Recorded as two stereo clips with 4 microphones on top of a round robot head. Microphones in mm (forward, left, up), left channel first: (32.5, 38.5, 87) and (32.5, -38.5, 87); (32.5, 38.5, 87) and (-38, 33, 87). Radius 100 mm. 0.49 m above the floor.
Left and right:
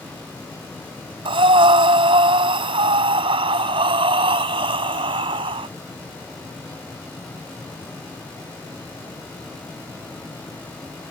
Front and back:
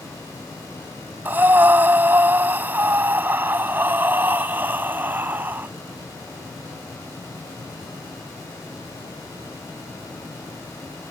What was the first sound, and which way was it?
Breathing, 105° right.